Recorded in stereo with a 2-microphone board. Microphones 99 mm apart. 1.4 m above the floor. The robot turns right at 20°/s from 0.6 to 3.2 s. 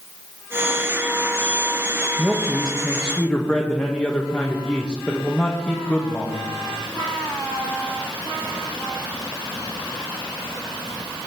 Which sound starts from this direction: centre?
A man speaking, at 2.2 s.